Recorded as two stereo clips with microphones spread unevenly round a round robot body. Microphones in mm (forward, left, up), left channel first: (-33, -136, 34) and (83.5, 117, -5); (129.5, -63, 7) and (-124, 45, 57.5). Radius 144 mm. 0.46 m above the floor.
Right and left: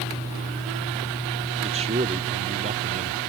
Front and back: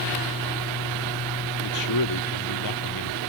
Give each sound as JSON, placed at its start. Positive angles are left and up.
{"t": 1.6, "sound": "a man speaking", "azimuth_deg": -5}